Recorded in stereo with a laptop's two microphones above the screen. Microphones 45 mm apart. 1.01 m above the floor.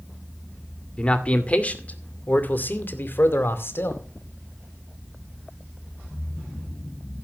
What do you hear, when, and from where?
1.0 s a man speaking: 25° left (ahead or behind), 2.5 m; by 4.0 s 65° left (ahead or behind), 2.5 m